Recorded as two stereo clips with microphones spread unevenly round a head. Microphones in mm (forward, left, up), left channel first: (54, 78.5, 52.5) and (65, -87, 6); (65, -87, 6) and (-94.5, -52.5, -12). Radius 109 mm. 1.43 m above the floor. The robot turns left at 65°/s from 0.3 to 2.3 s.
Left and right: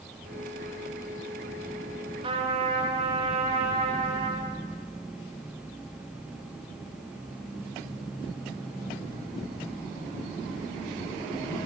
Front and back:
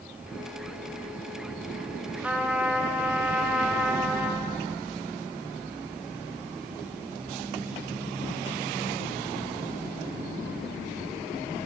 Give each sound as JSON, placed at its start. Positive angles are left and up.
{"t": 2.2, "sound": "a trumpet", "azimuth_deg": -115, "distance_m": 0.6}